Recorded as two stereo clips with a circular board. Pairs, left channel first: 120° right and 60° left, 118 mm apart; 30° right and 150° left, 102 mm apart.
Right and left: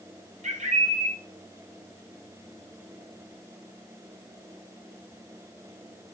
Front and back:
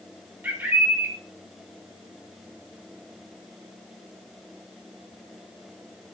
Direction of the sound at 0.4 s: 75° left.